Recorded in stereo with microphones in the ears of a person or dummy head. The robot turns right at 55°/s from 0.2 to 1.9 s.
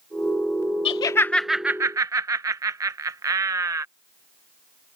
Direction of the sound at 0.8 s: 30° left (ahead or behind).